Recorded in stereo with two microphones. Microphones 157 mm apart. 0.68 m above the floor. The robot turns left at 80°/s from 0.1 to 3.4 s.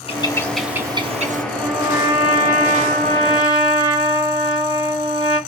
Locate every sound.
0.1 s a bird: 40° left, 0.7 m; by 1.4 s 65° right, 0.7 m
1.5 s a trumpet: 5° left, 1.7 m; by 5.4 s 145° right, 1.7 m